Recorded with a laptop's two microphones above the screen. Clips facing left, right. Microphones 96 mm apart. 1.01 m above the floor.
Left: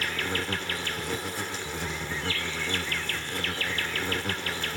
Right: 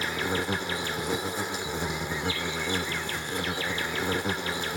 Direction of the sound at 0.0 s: 20° right (ahead or behind).